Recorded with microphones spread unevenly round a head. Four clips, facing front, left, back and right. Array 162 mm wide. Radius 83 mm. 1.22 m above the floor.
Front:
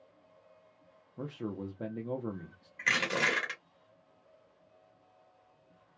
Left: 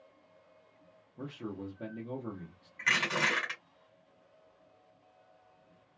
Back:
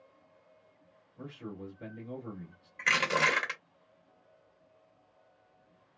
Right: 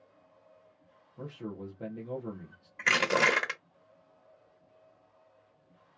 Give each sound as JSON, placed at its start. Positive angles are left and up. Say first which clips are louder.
{"t": 1.2, "sound": "a man speaking", "louder": "even, front 5 dB", "azimuth_deg": 0, "distance_m": 0.8}
{"t": 2.8, "sound": "crushing", "louder": "right 5 dB, back 3 dB", "azimuth_deg": -95, "distance_m": 1.3}